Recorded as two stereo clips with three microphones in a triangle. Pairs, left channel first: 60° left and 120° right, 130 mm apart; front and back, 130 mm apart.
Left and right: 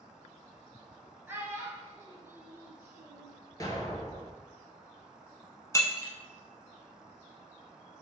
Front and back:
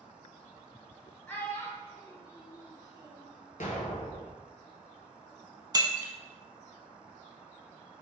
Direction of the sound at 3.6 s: Straight ahead.